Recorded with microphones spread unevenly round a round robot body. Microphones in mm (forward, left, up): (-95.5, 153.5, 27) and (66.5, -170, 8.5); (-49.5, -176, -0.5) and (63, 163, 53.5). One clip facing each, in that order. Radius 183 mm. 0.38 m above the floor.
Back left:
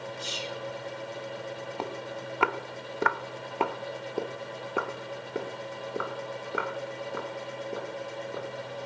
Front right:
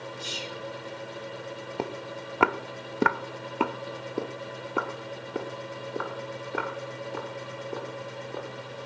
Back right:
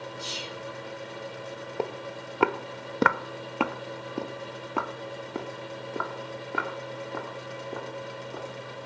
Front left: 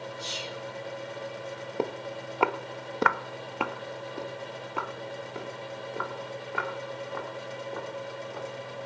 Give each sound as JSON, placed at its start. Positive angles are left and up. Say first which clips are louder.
{"t": 0.2, "sound": "whispering", "louder": "back left 1 dB, even", "azimuth_deg": -160, "distance_m": 8.0}
{"t": 1.8, "sound": "footsteps", "louder": "front right 4 dB, front left 1 dB", "azimuth_deg": -5, "distance_m": 0.8}